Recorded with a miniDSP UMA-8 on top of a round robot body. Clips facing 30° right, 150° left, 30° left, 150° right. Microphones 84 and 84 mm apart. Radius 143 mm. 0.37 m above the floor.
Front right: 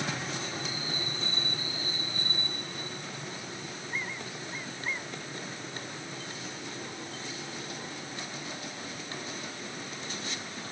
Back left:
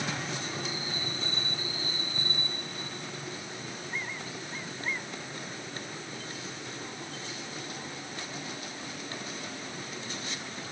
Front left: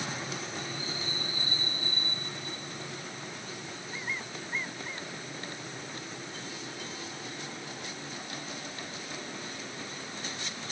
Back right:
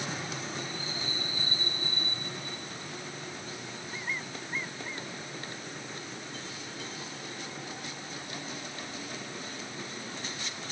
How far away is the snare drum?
No snare drum in this recording.